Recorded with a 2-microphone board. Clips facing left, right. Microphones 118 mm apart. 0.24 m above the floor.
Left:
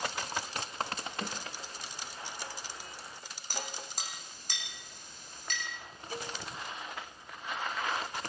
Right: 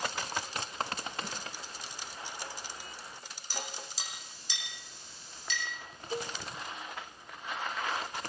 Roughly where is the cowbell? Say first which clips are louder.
Right 4 dB; right.